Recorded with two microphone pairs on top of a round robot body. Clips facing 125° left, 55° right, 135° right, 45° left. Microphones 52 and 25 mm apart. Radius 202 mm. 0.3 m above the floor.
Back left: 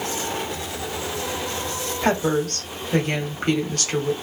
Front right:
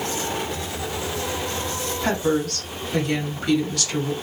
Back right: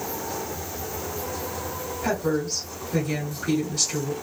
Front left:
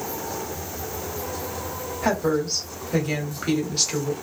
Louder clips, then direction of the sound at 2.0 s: Back left 1 dB, front left 3 dB; 85° left.